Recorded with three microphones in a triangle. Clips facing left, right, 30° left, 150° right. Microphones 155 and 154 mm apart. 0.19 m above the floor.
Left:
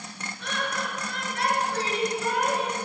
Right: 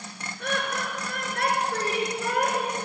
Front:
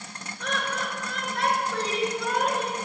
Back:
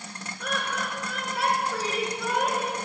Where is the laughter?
65° right, 3 m.